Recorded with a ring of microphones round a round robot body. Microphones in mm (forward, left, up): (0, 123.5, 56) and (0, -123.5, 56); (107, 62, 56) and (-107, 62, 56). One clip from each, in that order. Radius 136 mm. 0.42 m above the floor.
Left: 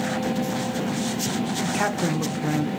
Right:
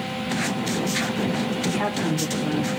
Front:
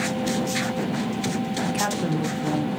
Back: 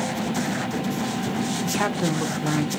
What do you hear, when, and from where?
1.6 s a woman speaking: 110° left, 0.8 m; by 2.7 s 150° left, 1.3 m